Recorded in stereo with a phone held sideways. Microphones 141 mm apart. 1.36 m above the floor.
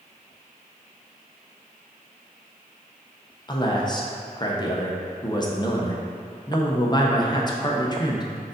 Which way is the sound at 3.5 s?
30° left (ahead or behind).